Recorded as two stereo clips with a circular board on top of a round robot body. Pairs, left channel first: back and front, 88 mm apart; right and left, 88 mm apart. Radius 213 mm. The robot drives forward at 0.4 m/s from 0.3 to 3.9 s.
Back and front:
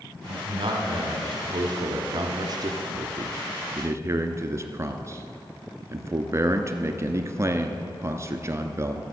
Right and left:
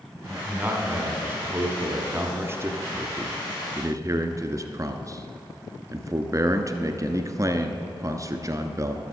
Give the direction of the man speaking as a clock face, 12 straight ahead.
11 o'clock.